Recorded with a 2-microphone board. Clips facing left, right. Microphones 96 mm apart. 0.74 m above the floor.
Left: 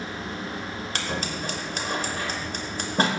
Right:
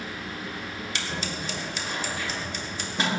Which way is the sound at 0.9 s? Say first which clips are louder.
Left 3 dB; 45° left (ahead or behind).